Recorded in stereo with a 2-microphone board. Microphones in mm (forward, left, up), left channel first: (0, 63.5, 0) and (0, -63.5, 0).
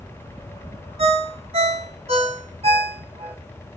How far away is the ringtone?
About 0.6 m.